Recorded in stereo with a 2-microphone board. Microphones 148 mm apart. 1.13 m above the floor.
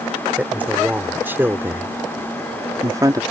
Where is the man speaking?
10° right (ahead or behind); by 3.2 s 25° right (ahead or behind).